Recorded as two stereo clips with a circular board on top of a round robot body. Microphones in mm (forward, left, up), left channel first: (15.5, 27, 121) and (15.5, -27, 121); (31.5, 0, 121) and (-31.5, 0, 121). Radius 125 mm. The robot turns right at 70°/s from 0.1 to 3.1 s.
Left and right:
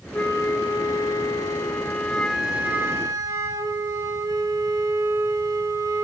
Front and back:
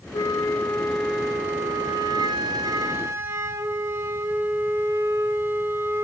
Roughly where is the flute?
Ahead left.